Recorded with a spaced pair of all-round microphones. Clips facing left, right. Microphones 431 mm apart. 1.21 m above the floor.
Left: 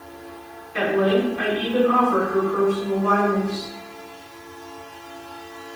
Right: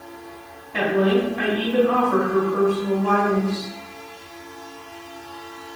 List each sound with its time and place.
0.7 s a woman speaking: 85° right, 3 m